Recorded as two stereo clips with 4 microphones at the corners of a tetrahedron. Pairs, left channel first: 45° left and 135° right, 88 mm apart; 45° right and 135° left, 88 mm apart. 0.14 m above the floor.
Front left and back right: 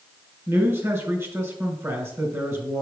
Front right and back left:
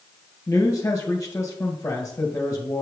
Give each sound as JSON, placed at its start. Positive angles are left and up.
{"t": 0.5, "sound": "a man speaking", "azimuth_deg": -85, "distance_m": 1.9}